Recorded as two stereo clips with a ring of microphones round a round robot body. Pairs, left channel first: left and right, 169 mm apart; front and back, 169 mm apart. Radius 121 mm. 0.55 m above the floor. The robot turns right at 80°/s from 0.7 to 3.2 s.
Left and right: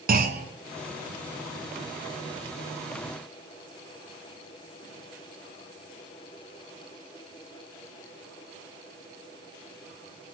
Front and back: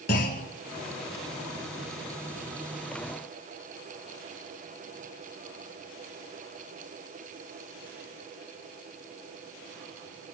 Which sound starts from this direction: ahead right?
A clunk, at 0.1 s.